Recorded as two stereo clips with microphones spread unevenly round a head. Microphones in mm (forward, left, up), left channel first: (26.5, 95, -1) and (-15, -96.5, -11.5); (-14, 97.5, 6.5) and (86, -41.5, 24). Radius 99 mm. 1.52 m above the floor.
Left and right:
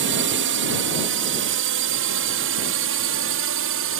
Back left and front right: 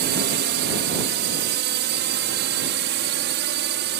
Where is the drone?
85° right; by 4.0 s 90° right.